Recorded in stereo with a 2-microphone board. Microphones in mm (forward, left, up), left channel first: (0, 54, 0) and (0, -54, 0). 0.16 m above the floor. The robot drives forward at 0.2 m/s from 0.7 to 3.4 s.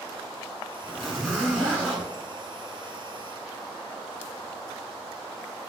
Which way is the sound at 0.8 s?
Centre (ahead or behind).